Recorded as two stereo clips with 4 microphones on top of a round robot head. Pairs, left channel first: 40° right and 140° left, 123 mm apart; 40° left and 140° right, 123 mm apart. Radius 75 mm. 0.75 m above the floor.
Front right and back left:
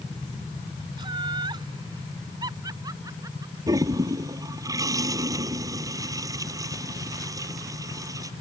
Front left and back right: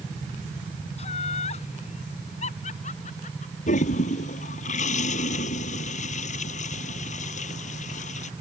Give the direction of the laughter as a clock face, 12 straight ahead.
9 o'clock.